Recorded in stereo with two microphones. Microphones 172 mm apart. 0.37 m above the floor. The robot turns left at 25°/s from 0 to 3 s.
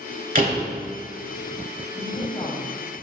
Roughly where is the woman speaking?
Left.